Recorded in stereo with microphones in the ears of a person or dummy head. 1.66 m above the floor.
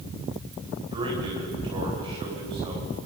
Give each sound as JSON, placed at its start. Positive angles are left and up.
{"t": 0.9, "sound": "a man speaking", "side_deg": -30, "distance_m": 8.5}